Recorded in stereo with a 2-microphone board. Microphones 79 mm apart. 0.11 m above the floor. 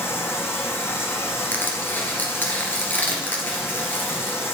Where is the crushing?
25° left (ahead or behind), 2 m.